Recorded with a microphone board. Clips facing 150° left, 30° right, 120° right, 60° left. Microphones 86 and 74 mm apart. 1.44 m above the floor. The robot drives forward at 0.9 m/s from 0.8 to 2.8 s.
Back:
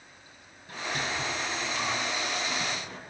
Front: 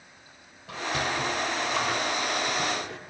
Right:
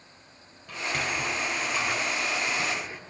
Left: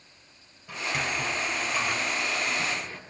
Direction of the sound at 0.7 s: 25° right.